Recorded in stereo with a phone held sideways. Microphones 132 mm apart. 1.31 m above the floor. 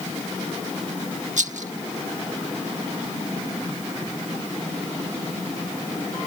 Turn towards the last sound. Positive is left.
turn(degrees=-70)  # may be behind; listen again after turning